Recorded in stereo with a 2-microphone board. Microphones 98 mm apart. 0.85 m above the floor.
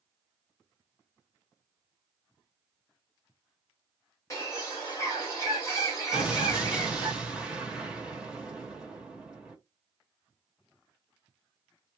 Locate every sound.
4.3 s a bird: 30° left (ahead or behind), 1.9 m
6.1 s an explosion: 10° right (ahead or behind), 1.1 m